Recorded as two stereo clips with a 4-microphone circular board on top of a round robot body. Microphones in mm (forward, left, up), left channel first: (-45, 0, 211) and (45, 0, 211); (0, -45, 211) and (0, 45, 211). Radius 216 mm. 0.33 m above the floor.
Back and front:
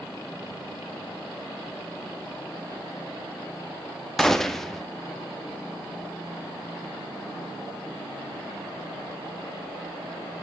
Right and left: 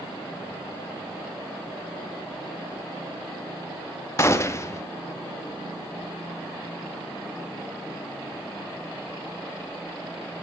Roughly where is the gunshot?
Right.